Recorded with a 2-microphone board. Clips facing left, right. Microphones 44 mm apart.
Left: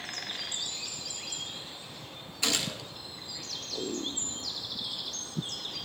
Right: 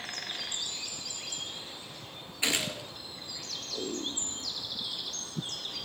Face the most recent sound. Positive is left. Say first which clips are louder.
# right 1 dB
turn(degrees=-20)  # may be behind; listen again after turning